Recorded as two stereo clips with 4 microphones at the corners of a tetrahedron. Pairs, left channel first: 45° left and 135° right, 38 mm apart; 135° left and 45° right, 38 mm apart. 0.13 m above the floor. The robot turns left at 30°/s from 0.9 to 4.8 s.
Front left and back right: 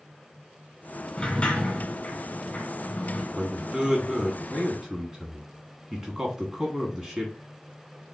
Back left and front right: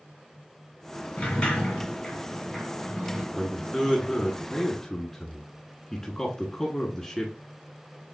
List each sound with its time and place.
1.2 s a sliding door: 90° left, 2 m; by 3.2 s 25° left, 2 m
3.3 s a man speaking: 130° right, 1.0 m; by 7.3 s 175° right, 1.0 m